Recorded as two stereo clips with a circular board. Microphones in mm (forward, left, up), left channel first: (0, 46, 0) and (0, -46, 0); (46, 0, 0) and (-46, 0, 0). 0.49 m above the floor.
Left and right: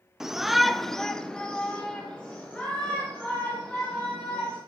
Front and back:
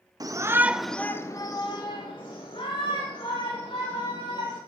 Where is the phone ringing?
No phone ringing in this recording.